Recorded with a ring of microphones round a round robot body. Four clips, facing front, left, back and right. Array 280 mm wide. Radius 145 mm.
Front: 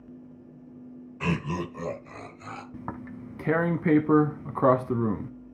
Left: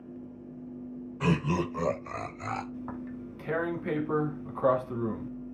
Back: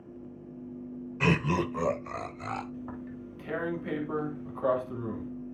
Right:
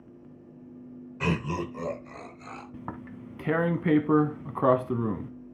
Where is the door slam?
No door slam in this recording.